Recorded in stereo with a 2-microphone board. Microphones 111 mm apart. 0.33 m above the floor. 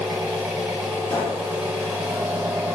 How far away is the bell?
I don't hear a bell.